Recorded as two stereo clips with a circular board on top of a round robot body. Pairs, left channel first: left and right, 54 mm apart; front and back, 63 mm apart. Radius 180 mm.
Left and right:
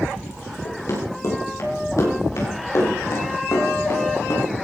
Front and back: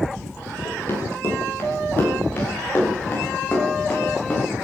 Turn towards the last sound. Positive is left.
turn(degrees=65)